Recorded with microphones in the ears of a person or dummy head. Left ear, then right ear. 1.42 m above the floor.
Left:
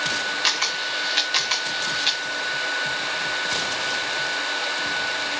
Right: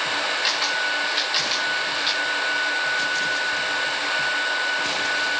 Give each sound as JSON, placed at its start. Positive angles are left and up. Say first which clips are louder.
{"t": 0.4, "sound": "a camera shutter", "louder": "left 1 dB", "side_deg": 25, "distance_m": 1.5}